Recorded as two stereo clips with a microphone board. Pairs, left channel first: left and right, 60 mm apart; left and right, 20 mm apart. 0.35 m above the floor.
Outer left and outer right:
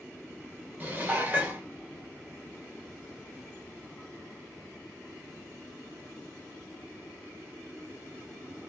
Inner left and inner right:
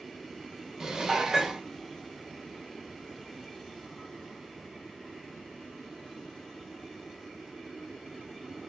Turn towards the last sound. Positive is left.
turn(degrees=-30)  # may be behind; listen again after turning